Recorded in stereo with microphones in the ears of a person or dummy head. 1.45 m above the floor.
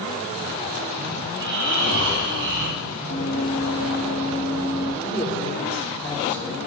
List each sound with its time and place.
1.3 s snoring: 65° right (ahead or behind), 4 m
3.1 s running footsteps: 45° right (ahead or behind), 5 m; by 4.9 s 35° right (ahead or behind), 5 m
5.0 s a man speaking: 15° left (ahead or behind), 1.2 m